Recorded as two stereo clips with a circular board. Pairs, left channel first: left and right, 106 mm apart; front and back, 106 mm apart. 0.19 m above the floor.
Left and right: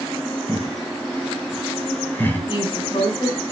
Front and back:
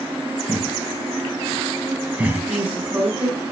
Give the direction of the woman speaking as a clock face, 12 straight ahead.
8 o'clock.